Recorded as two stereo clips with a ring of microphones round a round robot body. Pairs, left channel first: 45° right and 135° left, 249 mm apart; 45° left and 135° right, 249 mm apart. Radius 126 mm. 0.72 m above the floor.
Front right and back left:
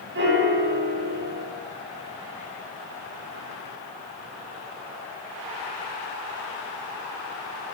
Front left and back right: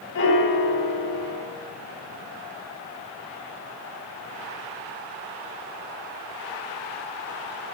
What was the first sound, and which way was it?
A piano, 85° left.